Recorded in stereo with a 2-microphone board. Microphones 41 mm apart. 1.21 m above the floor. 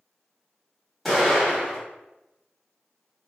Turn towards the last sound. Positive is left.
turn(degrees=5)  # may be behind; listen again after turning